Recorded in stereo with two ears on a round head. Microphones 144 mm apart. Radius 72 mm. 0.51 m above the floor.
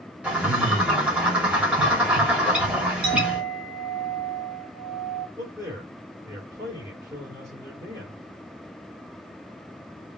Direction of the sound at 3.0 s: 65° right (ahead or behind).